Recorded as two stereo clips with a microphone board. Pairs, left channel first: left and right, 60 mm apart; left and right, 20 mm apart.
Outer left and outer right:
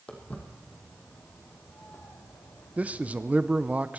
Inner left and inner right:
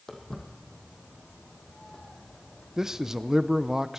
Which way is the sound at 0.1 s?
25° left (ahead or behind).